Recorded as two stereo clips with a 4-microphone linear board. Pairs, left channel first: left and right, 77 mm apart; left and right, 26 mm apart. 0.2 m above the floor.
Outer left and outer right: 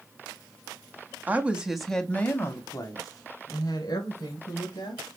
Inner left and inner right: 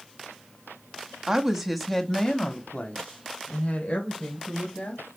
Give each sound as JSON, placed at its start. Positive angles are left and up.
{"t": 1.3, "sound": "a woman speaking", "side_deg": -25, "distance_m": 1.1}